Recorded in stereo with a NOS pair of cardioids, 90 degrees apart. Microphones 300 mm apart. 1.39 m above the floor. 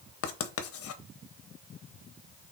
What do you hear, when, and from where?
0.2 s writing: 50° left, 0.8 m